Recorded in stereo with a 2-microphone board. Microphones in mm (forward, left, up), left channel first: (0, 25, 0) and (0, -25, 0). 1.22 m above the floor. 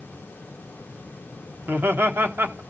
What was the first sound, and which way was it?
Laughter, 50° right (ahead or behind).